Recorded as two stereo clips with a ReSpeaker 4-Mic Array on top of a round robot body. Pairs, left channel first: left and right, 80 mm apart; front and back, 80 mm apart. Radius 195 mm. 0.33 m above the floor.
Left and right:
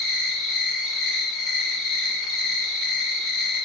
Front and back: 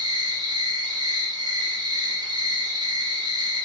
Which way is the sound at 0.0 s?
Straight behind.